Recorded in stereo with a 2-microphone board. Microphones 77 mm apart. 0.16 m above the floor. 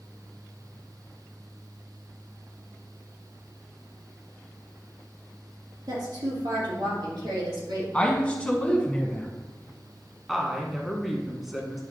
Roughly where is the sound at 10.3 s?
Centre.